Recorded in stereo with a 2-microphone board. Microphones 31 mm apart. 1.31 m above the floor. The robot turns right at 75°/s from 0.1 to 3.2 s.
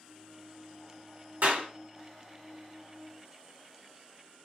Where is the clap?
60° right (ahead or behind), 1.8 m; by 1.7 s 80° right, 1.8 m.